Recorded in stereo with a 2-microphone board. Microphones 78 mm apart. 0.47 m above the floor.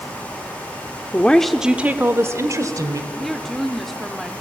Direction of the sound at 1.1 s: 20° left (ahead or behind).